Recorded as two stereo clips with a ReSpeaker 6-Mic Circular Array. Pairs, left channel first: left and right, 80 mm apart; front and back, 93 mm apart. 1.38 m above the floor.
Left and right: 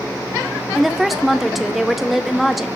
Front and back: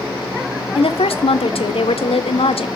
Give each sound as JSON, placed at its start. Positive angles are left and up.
{"t": 0.8, "sound": "a woman speaking", "azimuth_deg": 0, "distance_m": 0.6}